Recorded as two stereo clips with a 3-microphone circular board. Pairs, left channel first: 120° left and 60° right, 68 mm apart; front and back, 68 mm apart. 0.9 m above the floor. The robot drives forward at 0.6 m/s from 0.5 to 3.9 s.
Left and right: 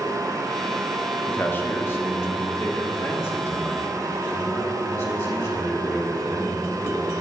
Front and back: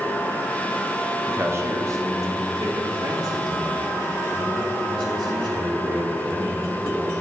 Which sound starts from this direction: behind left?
A man speaking, at 1.3 s.